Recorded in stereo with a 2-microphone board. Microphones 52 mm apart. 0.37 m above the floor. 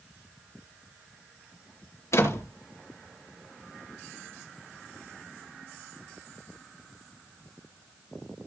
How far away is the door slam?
About 4.5 m.